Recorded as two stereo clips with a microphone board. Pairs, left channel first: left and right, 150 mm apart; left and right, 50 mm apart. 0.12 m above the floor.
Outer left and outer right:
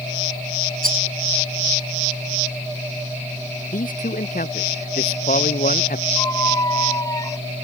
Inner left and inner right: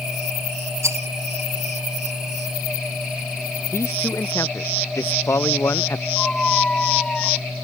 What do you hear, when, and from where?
0.8 s a rattle: 75° right (ahead or behind)
3.7 s a man speaking: 75° left (ahead or behind)
6.2 s a squeak: 25° left (ahead or behind)